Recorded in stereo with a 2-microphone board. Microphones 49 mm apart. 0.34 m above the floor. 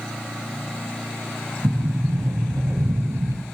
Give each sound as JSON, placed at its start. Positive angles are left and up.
{"t": 1.6, "sound": "a sliding door", "side_deg": -85, "distance_m": 3.0}